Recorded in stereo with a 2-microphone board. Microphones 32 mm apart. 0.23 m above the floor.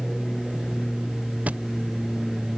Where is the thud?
55° right (ahead or behind).